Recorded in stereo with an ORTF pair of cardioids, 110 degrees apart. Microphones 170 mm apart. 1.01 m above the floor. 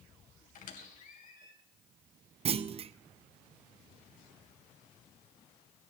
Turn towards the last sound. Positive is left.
turn(degrees=-35)